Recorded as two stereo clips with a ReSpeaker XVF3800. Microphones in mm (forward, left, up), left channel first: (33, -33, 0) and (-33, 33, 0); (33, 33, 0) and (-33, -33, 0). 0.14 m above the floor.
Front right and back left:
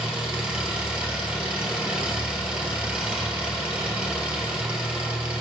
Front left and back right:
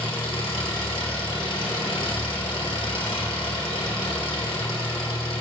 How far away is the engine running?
About 2.5 m.